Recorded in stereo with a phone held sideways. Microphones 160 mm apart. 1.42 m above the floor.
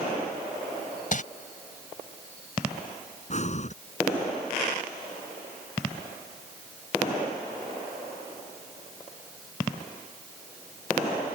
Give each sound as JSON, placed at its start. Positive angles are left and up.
{"t": 1.1, "sound": "crumpling", "side_deg": 55}
{"t": 3.3, "sound": "breathing", "side_deg": 45}